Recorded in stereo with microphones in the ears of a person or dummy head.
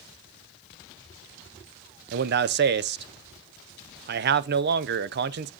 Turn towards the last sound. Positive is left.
turn(degrees=-50)  # may be behind; listen again after turning